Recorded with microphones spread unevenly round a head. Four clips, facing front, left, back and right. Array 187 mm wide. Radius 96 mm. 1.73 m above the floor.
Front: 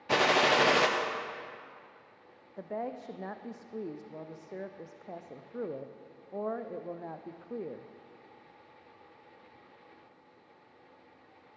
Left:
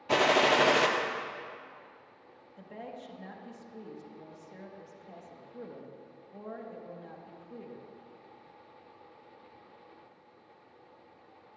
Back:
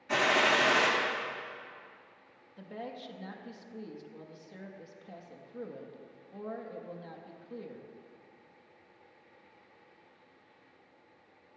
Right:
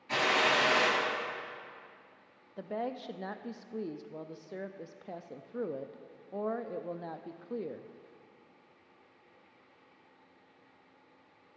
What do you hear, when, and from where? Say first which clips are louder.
0.1 s a gunshot: left 5 dB, front 2 dB; 45° left, 0.7 m
2.6 s a woman speaking: right 8 dB, front 6 dB; 50° right, 0.5 m